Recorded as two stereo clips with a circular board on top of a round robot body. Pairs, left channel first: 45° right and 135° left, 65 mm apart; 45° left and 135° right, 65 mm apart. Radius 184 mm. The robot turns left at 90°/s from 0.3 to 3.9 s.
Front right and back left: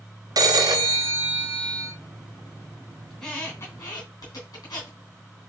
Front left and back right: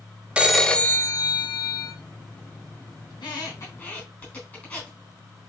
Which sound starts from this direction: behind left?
A phone ringing, at 0.4 s.